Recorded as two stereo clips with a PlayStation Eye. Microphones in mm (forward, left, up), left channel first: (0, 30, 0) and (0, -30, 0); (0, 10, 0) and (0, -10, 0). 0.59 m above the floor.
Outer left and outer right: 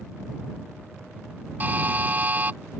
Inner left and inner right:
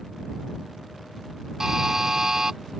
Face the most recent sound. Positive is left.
turn(degrees=-30)  # may be behind; listen again after turning